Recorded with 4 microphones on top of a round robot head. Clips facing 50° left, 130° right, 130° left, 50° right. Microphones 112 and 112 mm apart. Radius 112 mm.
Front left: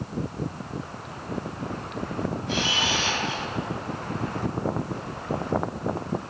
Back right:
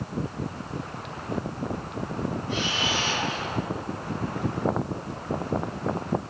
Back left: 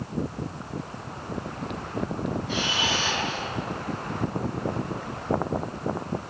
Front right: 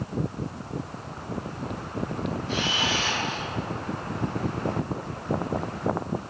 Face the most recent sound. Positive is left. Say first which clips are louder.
# front left 1 dB, even
turn(degrees=40)